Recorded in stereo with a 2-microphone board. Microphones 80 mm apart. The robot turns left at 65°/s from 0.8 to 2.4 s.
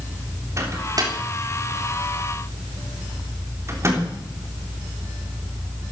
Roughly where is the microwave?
Right.